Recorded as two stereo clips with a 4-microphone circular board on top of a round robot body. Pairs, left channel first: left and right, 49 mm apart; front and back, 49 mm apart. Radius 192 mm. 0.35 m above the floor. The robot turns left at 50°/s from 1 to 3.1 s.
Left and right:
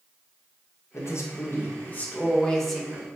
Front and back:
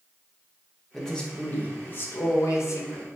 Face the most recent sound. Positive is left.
turn(degrees=-20)